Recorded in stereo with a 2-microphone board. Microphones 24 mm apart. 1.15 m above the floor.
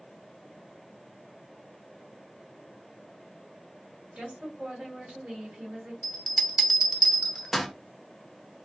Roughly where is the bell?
Centre.